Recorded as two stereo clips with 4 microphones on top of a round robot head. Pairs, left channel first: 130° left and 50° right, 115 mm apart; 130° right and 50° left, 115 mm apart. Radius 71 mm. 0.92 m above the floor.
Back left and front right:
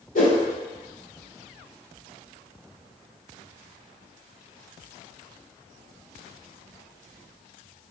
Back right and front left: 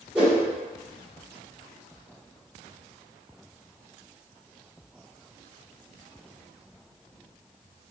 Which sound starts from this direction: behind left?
A whoosh, at 0.1 s.